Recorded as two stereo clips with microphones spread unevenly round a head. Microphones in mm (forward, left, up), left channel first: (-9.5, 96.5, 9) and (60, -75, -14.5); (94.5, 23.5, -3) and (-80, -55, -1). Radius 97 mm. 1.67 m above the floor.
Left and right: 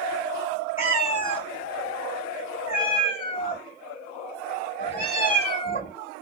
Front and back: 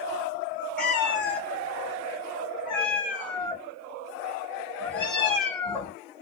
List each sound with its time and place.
0.8 s a cat meowing: 105° left, 1.7 m